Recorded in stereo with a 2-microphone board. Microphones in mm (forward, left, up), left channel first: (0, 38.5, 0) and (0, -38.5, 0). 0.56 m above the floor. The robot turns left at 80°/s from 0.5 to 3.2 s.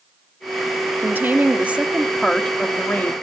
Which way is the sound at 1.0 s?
25° right (ahead or behind).